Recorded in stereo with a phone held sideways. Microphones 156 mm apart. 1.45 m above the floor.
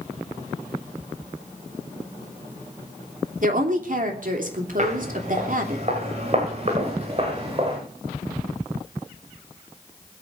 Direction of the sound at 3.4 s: 60° right (ahead or behind).